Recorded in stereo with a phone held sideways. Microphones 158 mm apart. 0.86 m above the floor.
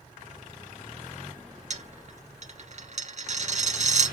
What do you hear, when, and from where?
1.7 s a dropped coin: 50° right (ahead or behind), 1.3 m